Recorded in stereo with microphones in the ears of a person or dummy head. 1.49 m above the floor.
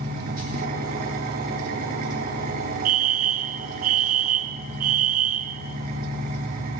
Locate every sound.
0.0 s an engine running: 55° right (ahead or behind), 4 m
2.9 s a fire alarm: 40° right (ahead or behind), 1.6 m